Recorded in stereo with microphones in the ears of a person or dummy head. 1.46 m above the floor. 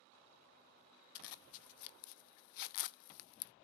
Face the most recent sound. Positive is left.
turn(degrees=65)  # may be behind; listen again after turning